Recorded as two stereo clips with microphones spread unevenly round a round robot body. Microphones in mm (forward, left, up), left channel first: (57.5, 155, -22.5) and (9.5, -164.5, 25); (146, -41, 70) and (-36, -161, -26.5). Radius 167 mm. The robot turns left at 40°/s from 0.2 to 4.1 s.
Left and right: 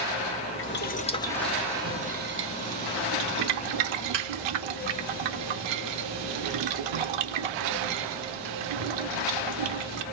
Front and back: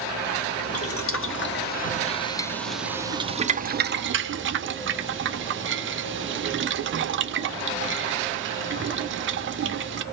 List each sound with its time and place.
0.6 s boiling: 30° left, 0.9 m; by 10.0 s 110° right, 0.9 m